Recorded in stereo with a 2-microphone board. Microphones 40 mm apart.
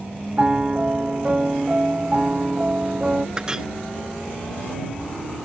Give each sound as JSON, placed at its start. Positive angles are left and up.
{"t": 0.4, "sound": "a piano", "side_deg": -30}
{"t": 3.4, "sound": "a clink", "side_deg": -20}